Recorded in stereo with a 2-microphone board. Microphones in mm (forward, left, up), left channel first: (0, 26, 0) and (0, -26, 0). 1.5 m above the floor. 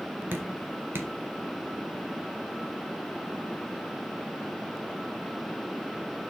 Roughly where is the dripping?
Right.